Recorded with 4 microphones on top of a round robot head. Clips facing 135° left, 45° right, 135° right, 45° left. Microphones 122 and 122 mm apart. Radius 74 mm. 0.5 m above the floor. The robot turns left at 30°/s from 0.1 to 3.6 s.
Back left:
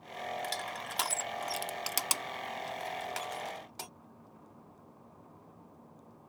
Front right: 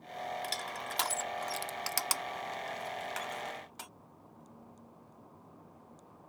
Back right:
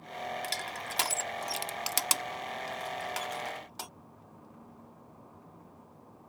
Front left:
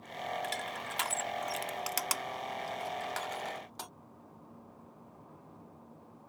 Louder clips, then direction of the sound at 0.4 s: Back left 1 dB, even; 125° right.